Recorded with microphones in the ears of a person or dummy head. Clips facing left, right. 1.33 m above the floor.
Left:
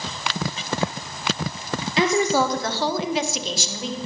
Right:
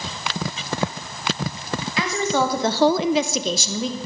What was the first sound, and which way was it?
A woman speaking, 25° left (ahead or behind).